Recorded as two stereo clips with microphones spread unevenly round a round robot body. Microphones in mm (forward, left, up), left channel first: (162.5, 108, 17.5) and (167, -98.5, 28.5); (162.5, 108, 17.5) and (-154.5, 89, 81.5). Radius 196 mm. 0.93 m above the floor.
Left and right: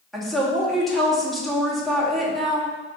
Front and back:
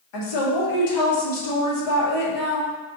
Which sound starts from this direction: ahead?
A woman speaking, at 0.1 s.